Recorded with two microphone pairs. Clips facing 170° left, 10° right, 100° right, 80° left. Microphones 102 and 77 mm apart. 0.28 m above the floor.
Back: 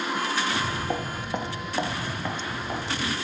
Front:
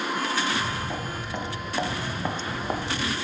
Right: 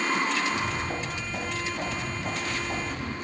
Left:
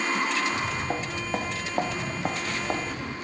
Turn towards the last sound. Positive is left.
turn(degrees=30)